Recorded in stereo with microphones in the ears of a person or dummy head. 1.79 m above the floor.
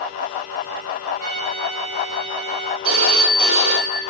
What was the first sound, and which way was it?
A trumpet, 45° right (ahead or behind).